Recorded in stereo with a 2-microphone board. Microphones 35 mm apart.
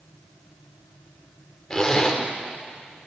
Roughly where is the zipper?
Centre.